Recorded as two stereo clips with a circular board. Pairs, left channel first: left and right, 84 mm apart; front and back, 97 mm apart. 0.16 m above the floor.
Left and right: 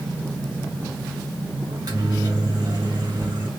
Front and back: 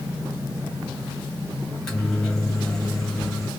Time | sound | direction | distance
1.7 | a microwave | 85° right | 2 m